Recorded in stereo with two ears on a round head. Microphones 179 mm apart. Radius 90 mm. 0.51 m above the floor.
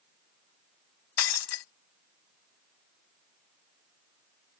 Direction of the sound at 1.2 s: 85° left.